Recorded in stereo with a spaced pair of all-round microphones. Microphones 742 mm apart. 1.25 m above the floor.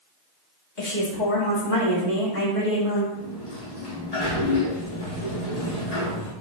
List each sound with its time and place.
0.8 s a woman speaking: 80° left, 2 m; by 3.0 s 70° left (ahead or behind), 3.5 m
3.1 s a sliding door: 55° left (ahead or behind), 1.9 m